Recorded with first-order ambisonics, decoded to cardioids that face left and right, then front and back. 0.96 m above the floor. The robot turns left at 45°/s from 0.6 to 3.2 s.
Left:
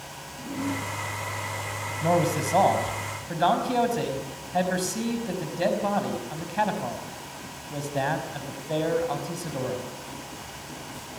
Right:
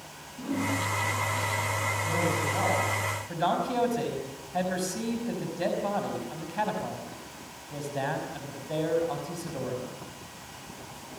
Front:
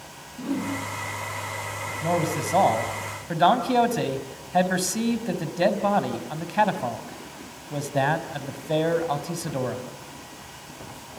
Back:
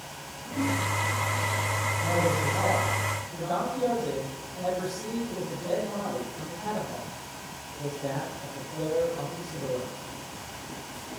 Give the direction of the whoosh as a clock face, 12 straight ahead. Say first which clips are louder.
Right 2 dB, front 1 dB; 1 o'clock.